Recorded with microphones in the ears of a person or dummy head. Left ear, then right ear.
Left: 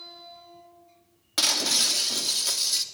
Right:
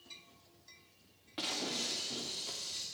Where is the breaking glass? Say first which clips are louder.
Left 14 dB; 65° left (ahead or behind), 2.5 m.